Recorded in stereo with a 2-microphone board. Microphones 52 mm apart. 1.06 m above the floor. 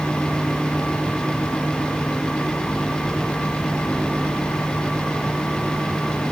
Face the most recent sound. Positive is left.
No sound to turn to.